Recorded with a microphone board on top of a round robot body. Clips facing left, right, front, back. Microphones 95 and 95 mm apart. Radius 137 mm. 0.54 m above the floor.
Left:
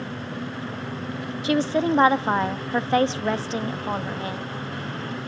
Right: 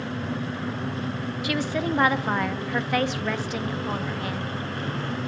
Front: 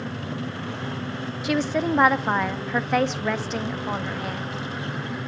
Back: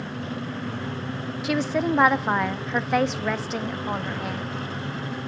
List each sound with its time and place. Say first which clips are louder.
1.4 s a woman speaking: left 6 dB, even; 90° left, 0.9 m